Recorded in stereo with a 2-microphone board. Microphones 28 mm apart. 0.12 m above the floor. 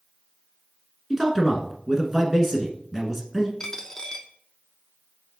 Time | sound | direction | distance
1.1 | a man speaking | 15° right (ahead or behind) | 1.2 m
3.6 | a dropped coin | 25° left (ahead or behind) | 0.8 m